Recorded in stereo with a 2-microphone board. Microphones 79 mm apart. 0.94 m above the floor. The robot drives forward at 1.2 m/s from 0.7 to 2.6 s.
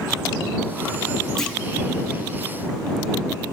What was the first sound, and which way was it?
A clunk, 5° left (ahead or behind).